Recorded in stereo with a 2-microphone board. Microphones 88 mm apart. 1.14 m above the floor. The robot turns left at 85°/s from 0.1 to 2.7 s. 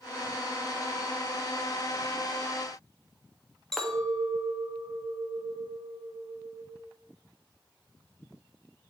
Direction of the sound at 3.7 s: 5° left (ahead or behind).